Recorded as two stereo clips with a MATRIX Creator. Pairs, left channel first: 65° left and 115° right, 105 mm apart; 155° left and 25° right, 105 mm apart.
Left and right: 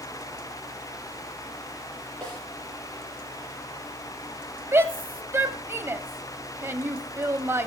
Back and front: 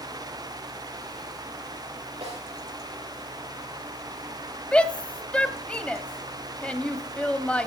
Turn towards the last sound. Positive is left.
turn(degrees=-140)